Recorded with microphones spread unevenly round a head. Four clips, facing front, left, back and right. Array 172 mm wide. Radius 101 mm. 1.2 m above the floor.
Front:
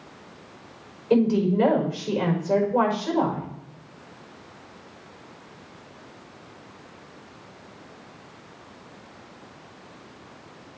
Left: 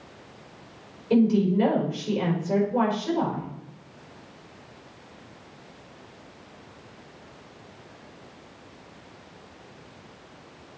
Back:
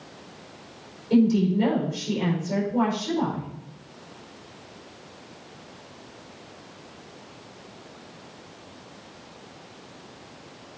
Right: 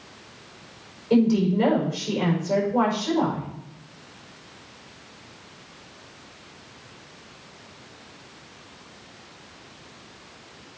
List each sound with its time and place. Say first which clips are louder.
1.1 s a woman speaking: right 1 dB, even; straight ahead, 5 m